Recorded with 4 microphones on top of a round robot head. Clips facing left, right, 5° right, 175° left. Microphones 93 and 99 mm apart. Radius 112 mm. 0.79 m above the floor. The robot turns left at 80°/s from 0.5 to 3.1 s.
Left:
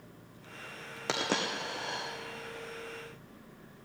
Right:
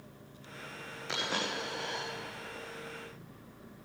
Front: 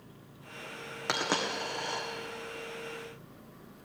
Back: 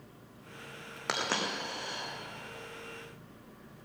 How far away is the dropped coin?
About 2 m.